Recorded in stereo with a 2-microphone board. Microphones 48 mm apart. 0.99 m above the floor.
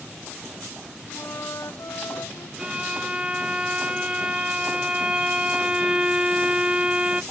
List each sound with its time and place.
1.1 s a flute: 80° left
2.6 s a violin: 20° right (ahead or behind)